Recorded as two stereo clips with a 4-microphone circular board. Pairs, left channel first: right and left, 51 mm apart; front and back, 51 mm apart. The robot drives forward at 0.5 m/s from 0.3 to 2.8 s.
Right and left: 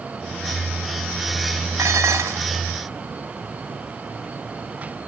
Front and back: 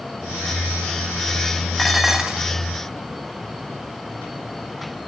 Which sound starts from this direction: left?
Dishes clattering, at 1.8 s.